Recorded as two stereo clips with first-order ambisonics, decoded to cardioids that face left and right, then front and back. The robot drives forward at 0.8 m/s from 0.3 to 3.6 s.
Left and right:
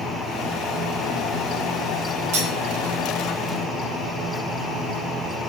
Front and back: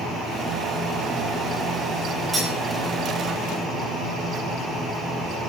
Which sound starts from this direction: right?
Cutlery clinking, at 2.3 s.